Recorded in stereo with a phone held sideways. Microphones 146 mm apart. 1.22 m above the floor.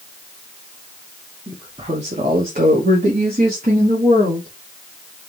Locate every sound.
1.5 s a woman speaking: 25° right (ahead or behind), 0.9 m; by 4.5 s 80° right, 2 m